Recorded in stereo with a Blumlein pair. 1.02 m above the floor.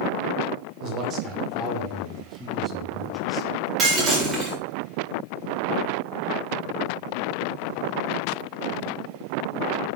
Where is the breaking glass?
20° right, 6.5 m.